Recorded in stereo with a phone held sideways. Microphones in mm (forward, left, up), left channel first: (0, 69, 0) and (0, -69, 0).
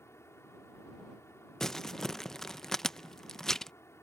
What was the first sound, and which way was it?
A fan, 20° left (ahead or behind).